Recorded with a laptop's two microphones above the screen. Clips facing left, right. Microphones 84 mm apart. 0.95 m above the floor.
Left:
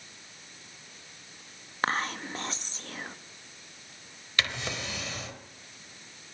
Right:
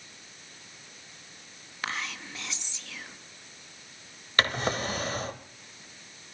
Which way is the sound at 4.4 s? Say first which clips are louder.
Right 6 dB; 45° right (ahead or behind).